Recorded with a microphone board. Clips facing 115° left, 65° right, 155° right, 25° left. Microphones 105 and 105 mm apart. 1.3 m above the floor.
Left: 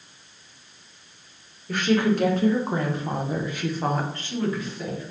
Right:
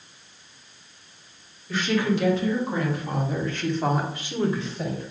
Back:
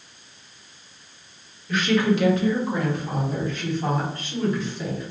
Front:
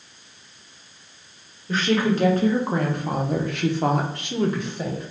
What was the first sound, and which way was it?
A woman speaking, 80° left.